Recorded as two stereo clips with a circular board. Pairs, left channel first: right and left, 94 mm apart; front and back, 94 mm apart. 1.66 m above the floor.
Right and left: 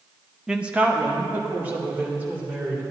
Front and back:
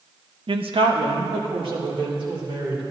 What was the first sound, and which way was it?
A man speaking, 170° left.